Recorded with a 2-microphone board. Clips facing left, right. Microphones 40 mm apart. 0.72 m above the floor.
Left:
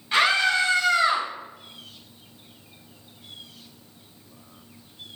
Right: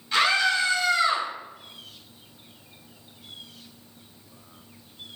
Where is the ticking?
No ticking in this recording.